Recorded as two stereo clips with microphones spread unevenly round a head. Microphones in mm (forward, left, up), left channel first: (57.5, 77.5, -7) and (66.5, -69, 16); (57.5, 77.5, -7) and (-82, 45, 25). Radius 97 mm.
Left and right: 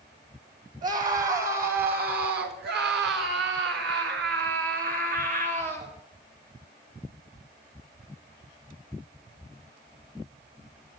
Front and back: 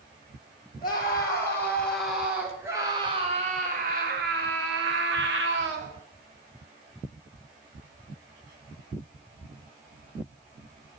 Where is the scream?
55° right, 3 m; by 6.0 s 150° right, 3.5 m.